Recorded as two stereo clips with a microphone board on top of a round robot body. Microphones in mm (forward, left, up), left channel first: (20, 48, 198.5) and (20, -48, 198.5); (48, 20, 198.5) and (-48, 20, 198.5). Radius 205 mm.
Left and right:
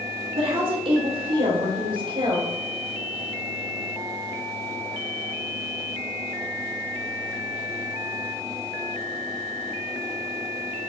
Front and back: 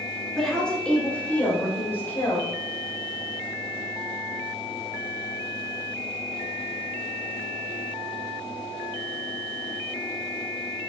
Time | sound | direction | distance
0.4 | a woman speaking | 85° right | 3 m